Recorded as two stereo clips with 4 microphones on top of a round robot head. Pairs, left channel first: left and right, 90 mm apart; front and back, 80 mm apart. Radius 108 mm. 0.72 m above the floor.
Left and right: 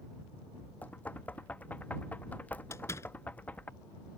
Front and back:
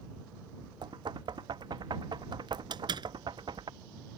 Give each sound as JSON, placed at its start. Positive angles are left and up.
{"t": 0.8, "sound": "knocking", "azimuth_deg": 160}
{"t": 2.7, "sound": "a door slam", "azimuth_deg": 155}